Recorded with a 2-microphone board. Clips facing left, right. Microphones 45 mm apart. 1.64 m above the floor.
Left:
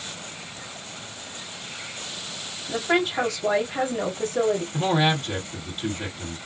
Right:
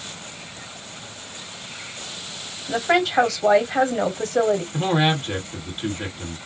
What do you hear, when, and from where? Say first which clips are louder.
2.7 s a woman speaking: right 3 dB; 85° right, 1.2 m
4.7 s a man speaking: right 1 dB; 25° right (ahead or behind), 1.7 m